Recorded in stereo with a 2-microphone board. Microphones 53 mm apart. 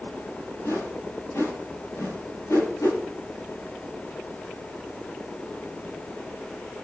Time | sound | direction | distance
0.6 | a whoosh | 80° left | 9 m